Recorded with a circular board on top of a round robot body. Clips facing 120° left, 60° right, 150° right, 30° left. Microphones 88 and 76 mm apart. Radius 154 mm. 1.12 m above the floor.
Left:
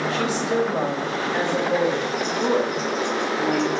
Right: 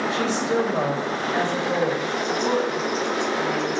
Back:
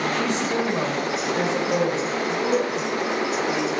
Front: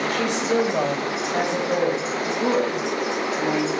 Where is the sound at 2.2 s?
60° left, 2.0 m.